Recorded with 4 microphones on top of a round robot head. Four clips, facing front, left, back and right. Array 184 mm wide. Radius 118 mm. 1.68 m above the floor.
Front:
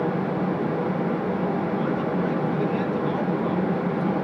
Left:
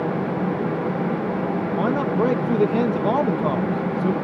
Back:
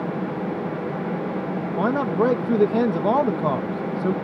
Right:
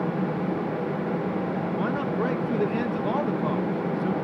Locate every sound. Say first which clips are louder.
1.8 s a man speaking: left 7 dB, back 4 dB; 150° left